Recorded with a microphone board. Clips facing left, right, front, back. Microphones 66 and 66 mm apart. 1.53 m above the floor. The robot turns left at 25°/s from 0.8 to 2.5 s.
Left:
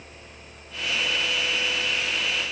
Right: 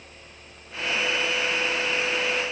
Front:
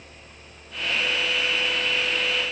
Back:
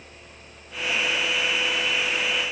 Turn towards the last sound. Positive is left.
No sound to turn to.